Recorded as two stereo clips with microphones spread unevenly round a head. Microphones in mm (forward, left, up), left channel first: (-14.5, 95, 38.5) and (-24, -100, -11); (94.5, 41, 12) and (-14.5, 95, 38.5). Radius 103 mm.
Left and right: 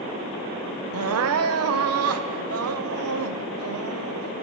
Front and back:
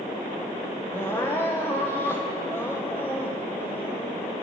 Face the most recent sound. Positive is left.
turn(degrees=-105)